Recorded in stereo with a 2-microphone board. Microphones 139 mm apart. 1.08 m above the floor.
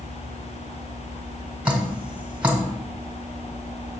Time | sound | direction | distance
1.6 | dripping | 10° right (ahead or behind) | 1.4 m